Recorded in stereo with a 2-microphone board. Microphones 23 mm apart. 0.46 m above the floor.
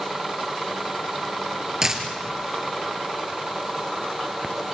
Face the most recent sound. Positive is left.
turn(degrees=-20)  # may be behind; listen again after turning